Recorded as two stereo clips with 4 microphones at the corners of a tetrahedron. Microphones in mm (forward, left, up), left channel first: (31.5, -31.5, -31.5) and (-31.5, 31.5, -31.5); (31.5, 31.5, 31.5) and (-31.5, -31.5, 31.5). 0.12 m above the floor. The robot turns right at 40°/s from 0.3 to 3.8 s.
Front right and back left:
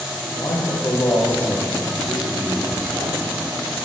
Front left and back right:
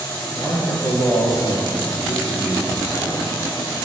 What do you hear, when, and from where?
0.3 s a man speaking: 20° right, 2.5 m; by 3.3 s 95° left, 2.5 m